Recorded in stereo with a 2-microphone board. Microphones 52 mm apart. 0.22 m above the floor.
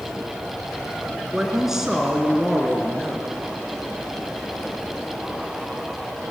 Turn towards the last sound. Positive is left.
turn(degrees=-10)  # may be behind; listen again after turning